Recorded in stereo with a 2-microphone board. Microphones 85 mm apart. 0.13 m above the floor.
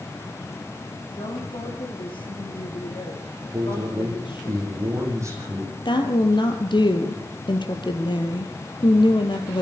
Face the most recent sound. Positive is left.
turn(degrees=65)  # may be behind; listen again after turning